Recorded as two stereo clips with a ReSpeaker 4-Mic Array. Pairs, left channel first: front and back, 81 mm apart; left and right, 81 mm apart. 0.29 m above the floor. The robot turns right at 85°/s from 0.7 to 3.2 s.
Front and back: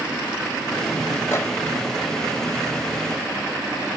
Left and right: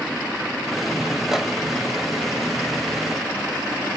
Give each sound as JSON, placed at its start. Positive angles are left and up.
{"t": 1.3, "sound": "a microwave", "azimuth_deg": -10, "distance_m": 0.9}